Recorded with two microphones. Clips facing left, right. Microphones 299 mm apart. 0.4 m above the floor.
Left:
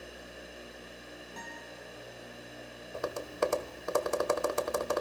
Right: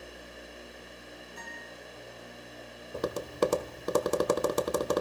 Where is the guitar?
80° left, 9.5 m.